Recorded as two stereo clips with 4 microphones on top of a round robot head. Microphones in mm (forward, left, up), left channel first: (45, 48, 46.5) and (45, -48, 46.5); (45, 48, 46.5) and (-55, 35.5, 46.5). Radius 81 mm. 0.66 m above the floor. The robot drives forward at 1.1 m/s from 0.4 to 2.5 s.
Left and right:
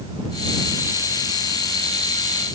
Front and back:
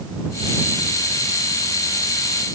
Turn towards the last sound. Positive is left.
No sound to turn to.